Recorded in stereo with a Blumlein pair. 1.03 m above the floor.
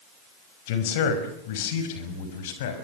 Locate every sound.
0.7 s a man speaking: 50° left, 5 m; by 2.7 s 55° left, 6 m